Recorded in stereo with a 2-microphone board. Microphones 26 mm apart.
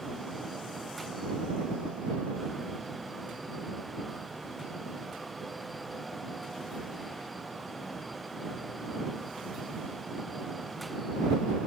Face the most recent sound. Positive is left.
No sound to turn to.